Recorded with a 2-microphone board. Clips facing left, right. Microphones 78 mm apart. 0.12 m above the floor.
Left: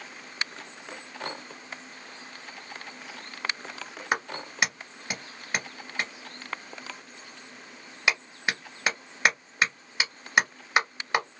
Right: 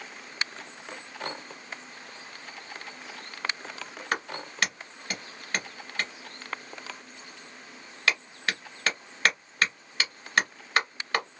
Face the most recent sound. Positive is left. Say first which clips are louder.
# left 2 dB
turn(degrees=15)  # may be behind; listen again after turning